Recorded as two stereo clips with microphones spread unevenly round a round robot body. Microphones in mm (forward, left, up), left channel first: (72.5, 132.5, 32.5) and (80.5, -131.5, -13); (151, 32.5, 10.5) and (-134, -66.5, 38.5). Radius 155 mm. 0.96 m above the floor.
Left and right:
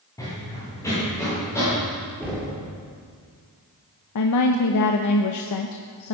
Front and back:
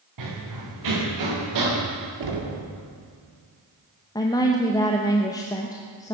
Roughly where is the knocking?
Behind.